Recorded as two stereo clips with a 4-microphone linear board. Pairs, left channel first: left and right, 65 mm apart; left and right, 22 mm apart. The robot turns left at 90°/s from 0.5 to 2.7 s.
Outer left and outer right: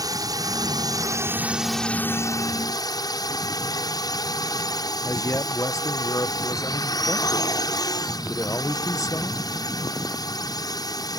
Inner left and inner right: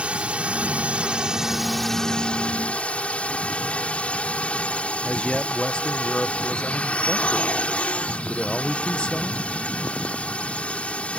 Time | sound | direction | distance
0.0 | a drone | 70° right | ?
5.0 | a man speaking | 50° left (ahead or behind) | ?